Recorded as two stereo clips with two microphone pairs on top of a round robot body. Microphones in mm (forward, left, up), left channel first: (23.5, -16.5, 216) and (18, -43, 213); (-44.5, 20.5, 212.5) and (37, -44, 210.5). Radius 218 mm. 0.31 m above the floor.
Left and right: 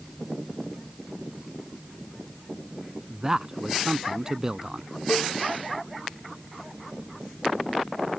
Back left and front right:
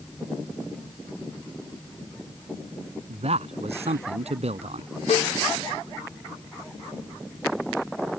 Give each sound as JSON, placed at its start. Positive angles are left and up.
{"t": 3.1, "sound": "a man speaking", "azimuth_deg": -30}
{"t": 5.1, "sound": "a cowbell", "azimuth_deg": 115}